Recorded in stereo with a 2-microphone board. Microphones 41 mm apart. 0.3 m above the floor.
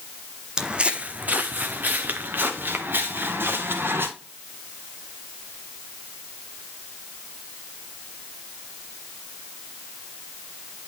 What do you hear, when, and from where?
0.6 s footsteps: 20° right (ahead or behind), 0.7 m; by 4.1 s 65° right (ahead or behind), 2.5 m